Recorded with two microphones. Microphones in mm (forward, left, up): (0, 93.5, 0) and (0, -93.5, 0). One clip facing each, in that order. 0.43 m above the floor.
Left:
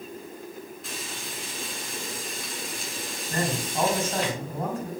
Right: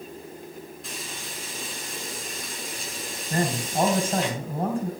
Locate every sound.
0.8 s frying: centre (ahead or behind), 5 m
3.3 s a man speaking: 30° right (ahead or behind), 3.5 m